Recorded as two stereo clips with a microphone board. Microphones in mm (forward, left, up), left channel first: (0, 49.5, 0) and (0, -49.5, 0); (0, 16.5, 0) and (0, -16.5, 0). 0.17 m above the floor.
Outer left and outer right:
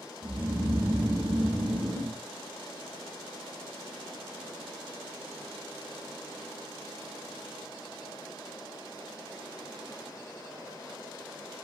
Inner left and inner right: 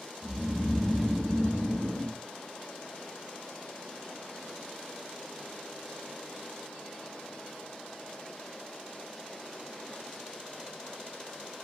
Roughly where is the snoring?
Right.